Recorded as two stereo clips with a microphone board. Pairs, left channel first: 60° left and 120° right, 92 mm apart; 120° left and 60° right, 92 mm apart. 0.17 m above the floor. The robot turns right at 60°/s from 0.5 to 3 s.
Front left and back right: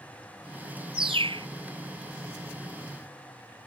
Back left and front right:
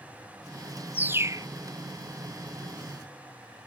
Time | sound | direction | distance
0.9 | a bird | 135° right | ?